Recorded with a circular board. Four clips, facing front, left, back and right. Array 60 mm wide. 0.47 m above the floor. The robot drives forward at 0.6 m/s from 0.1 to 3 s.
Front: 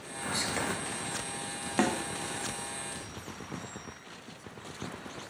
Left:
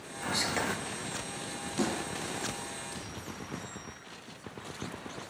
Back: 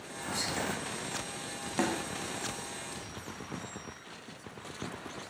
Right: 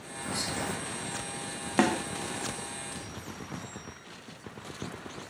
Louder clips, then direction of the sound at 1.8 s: Right 7 dB, front 3 dB; 70° right.